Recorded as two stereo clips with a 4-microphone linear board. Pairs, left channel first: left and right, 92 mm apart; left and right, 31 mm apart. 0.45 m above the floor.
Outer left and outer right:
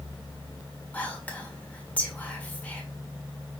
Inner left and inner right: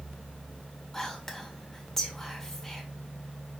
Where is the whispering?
15° left (ahead or behind), 1.4 m.